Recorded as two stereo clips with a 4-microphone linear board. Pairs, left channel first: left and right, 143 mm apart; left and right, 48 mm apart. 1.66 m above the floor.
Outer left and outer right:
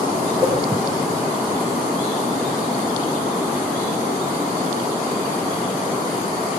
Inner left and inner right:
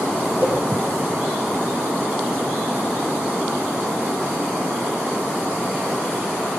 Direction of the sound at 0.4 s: 40° left (ahead or behind).